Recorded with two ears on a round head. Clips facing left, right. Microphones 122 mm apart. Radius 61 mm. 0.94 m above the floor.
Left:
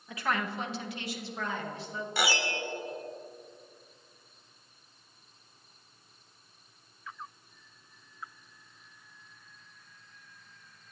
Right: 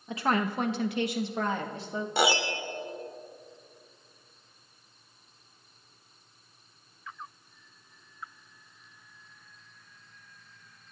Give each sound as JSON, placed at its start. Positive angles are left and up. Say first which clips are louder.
{"t": 0.1, "sound": "a woman speaking", "louder": "right 5 dB", "side_deg": -20, "distance_m": 1.3}
{"t": 2.2, "sound": "a piano", "louder": "right 5 dB", "side_deg": -25, "distance_m": 1.2}